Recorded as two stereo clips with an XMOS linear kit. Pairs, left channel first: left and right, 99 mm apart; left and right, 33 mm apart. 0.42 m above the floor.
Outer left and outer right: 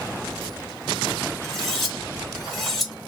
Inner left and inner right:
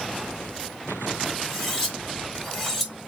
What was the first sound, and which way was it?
Cutlery clinking, centre (ahead or behind).